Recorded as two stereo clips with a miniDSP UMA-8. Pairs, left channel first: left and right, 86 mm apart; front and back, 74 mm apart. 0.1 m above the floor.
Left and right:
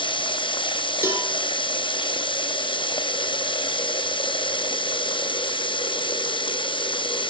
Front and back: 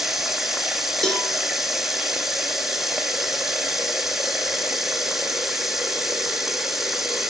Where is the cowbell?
70° right, 1.4 m.